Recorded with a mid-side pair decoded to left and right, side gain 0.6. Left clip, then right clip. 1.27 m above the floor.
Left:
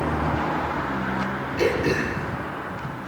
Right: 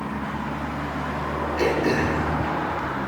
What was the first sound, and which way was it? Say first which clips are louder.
Throat clearing: even; 5° right.